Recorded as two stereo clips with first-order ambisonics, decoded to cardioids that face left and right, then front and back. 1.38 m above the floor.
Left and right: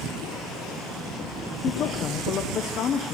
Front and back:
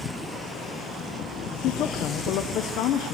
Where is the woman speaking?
40° left, 0.6 m.